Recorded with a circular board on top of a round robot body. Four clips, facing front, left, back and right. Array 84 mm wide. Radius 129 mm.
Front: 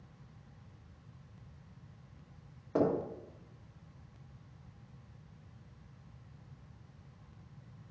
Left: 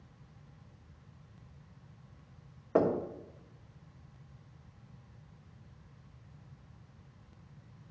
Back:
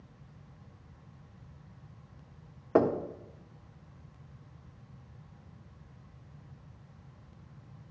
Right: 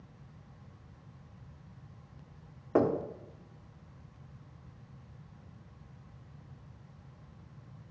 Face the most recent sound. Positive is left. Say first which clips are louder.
# right 1 dB, back 5 dB
turn(degrees=-170)